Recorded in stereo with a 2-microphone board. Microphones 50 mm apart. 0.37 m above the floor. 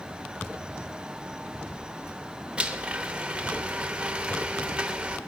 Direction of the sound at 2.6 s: 20° right (ahead or behind).